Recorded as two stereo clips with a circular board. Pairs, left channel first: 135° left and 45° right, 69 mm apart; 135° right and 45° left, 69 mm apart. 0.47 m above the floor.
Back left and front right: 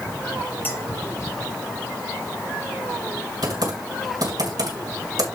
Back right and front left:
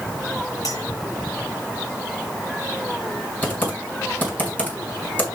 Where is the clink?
165° right, 4.5 m.